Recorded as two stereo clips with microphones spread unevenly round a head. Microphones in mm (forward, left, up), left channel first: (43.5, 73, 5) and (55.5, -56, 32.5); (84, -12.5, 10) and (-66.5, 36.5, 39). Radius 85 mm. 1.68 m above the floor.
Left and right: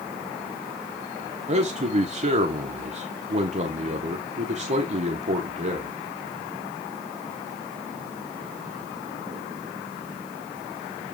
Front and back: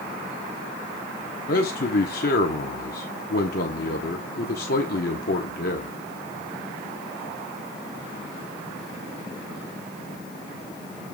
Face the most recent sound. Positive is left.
turn(degrees=-55)